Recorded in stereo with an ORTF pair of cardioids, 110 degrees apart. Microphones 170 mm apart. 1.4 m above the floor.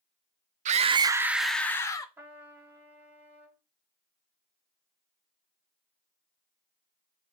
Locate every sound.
0.7 s a scream: 45° right, 0.5 m; by 2.1 s 20° left, 0.8 m
2.2 s a trumpet: 10° right, 1.1 m